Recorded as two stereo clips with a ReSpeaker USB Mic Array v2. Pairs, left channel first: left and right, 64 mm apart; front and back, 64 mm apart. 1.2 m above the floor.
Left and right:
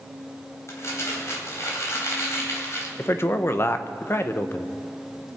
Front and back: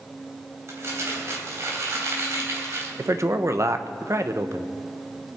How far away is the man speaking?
About 0.8 m.